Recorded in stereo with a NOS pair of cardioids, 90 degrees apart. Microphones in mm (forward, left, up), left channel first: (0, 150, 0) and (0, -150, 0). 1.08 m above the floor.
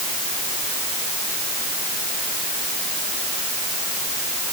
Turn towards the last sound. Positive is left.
No sound to turn to.